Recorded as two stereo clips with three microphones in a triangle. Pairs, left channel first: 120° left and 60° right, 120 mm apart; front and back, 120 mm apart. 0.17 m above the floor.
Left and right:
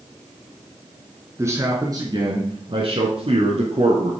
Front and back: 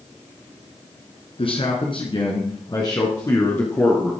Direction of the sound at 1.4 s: Straight ahead.